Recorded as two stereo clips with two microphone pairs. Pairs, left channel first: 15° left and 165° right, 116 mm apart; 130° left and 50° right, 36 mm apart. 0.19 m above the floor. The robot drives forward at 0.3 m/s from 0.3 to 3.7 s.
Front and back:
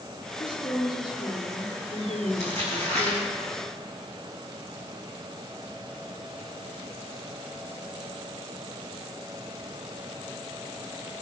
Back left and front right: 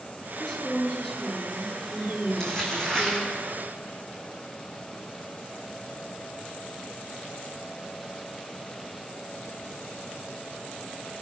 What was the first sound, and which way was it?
A woman speaking, 60° left.